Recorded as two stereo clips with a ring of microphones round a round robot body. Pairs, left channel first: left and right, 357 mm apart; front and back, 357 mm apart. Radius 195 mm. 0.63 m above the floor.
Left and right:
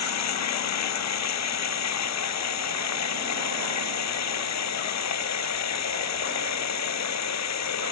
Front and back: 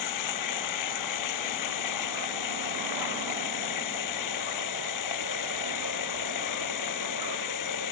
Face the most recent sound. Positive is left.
turn(degrees=45)